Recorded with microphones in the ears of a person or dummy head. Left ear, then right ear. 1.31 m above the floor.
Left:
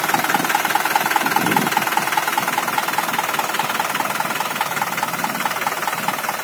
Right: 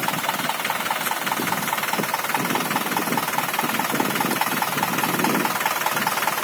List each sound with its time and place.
Only background noise.